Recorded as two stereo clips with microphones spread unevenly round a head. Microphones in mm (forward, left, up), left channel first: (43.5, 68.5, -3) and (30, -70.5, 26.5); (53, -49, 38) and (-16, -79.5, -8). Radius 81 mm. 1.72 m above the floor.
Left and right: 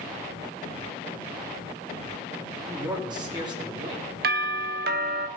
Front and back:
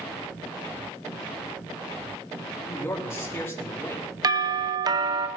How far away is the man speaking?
About 3.5 m.